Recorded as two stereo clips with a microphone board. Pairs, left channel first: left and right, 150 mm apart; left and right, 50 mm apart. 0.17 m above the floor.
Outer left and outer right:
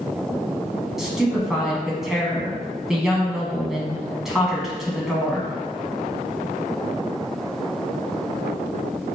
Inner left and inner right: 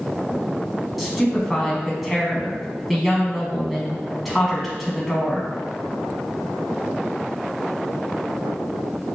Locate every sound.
1.0 s a woman speaking: 5° right (ahead or behind), 1.0 m